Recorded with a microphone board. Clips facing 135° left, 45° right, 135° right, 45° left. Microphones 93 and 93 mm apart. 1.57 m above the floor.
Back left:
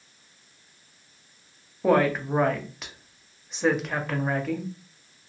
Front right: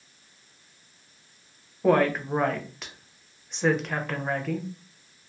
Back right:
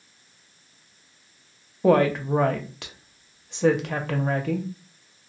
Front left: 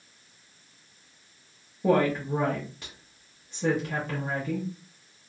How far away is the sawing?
I don't hear sawing.